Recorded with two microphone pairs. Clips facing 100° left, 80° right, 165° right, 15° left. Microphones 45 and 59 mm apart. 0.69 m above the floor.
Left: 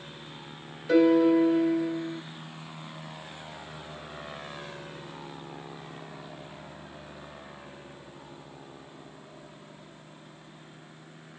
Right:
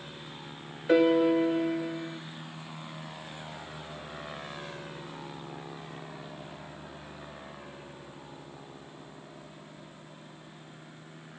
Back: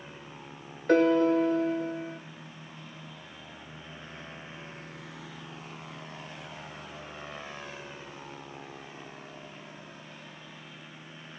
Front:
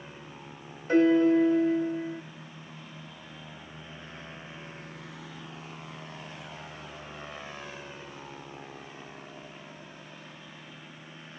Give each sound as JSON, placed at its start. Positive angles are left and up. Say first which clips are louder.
{"t": 0.9, "sound": "a piano", "louder": "left 2 dB, front 1 dB", "azimuth_deg": -150, "distance_m": 1.3}